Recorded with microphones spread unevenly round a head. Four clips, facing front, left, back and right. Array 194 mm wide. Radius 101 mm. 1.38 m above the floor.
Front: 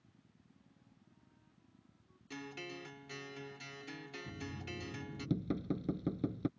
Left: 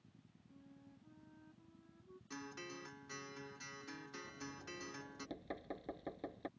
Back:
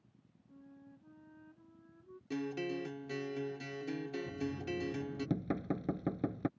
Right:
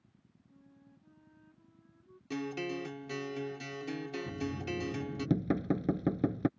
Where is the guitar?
130° right.